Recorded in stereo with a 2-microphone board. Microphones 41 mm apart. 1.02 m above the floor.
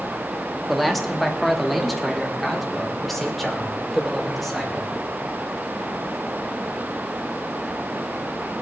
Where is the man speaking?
Centre (ahead or behind), 1.5 m; by 4.9 s 5° left (ahead or behind), 4 m.